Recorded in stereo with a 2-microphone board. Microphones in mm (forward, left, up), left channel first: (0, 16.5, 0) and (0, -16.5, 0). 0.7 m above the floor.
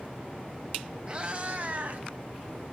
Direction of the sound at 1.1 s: 25° right (ahead or behind).